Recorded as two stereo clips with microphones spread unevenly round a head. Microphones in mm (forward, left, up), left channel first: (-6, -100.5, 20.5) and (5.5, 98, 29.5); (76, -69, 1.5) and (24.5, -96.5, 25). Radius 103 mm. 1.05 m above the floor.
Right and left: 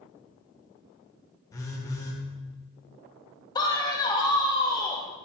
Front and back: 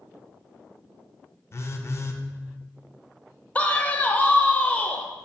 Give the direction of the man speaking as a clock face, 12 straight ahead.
1 o'clock.